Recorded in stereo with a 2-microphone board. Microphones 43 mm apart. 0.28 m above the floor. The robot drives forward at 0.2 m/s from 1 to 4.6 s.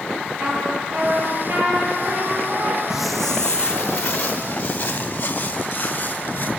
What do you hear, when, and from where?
0.4 s a trumpet: 75° right (ahead or behind), 8 m
2.9 s footsteps: 10° right (ahead or behind), 0.7 m; by 6.5 s 40° left (ahead or behind), 4.5 m